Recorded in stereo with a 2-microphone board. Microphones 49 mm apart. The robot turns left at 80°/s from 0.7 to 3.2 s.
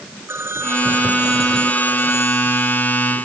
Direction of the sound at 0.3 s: 120° right.